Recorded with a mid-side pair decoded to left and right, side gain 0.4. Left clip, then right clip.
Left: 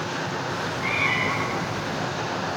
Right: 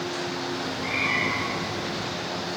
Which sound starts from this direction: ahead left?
A cat meowing, at 0.5 s.